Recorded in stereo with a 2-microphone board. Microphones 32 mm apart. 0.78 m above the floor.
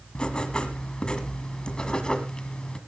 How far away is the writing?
About 1.6 m.